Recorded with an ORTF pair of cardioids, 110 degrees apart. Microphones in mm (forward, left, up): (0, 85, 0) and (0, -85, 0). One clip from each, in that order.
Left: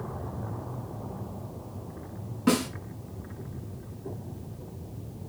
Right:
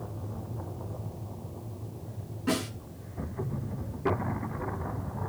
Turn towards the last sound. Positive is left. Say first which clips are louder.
# left 4 dB
turn(degrees=65)